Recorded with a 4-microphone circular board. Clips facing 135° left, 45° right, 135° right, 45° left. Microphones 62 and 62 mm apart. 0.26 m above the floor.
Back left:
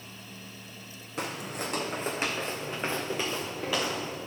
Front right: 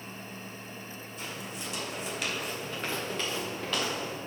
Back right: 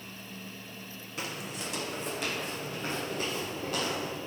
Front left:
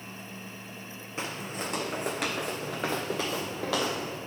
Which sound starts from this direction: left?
Footsteps, at 1.2 s.